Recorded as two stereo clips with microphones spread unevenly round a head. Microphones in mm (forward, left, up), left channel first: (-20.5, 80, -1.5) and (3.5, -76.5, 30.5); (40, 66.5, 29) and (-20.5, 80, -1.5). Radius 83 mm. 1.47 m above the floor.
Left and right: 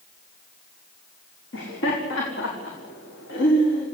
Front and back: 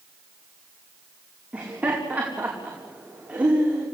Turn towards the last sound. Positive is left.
turn(degrees=100)